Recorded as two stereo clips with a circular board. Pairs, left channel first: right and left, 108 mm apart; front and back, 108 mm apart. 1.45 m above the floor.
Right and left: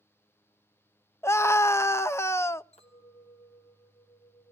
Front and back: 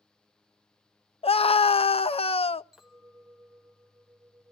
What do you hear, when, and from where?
1.2 s a scream: 25° right, 0.5 m
2.7 s a clink: 95° right, 3 m